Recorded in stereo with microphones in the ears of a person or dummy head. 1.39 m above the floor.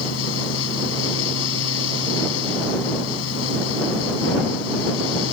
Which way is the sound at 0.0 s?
90° left.